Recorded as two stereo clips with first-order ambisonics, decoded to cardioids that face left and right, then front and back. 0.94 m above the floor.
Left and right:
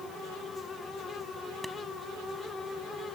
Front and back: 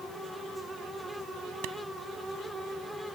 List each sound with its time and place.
1.6 s a clap: straight behind